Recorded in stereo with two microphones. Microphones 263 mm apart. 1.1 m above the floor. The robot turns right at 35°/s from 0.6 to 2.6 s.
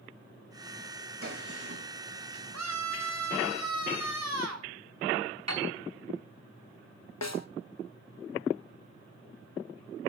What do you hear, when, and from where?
1.2 s a gunshot: 55° right (ahead or behind), 8.5 m; by 1.8 s 75° right (ahead or behind), 8.5 m
2.5 s a scream: 80° right, 4 m
5.5 s a piano: 80° right, 5.5 m
7.2 s a snare drum: 80° left, 0.8 m